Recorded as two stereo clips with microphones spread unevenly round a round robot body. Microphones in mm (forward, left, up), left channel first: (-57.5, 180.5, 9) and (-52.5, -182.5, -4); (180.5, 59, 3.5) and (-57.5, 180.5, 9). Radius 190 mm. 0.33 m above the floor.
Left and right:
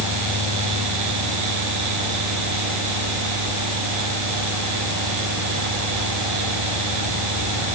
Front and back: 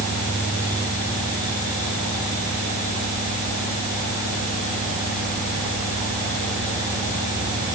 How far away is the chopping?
I don't hear chopping.